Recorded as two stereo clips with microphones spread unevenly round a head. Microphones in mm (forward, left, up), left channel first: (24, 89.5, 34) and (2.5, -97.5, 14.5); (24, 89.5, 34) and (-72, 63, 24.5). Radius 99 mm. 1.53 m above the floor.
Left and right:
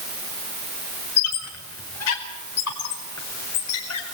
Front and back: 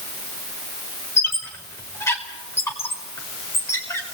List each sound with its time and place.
1.2 s a squeak: 80° left, 5 m